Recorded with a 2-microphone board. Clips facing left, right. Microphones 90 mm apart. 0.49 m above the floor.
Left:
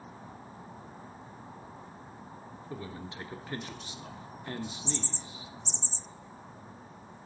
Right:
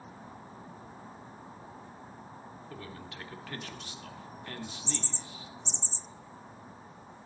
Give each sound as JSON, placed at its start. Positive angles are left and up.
{"t": 2.7, "sound": "a man speaking", "side_deg": 25, "distance_m": 1.0}